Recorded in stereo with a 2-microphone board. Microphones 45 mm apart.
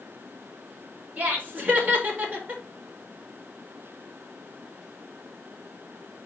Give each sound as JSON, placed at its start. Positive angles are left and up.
{"t": 1.2, "sound": "laughter", "side_deg": -35, "distance_m": 4.5}